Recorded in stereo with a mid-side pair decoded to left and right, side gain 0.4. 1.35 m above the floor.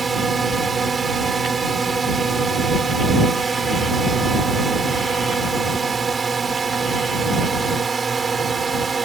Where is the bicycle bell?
No bicycle bell in this recording.